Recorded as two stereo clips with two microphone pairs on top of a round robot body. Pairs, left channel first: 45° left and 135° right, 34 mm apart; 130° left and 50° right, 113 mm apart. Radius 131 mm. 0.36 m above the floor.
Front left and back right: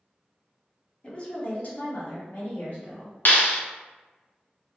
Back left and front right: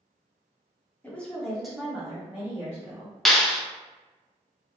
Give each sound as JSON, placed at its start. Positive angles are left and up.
{"t": 1.0, "sound": "a woman speaking", "azimuth_deg": 110, "distance_m": 1.1}
{"t": 3.2, "sound": "a clap", "azimuth_deg": 50, "distance_m": 0.7}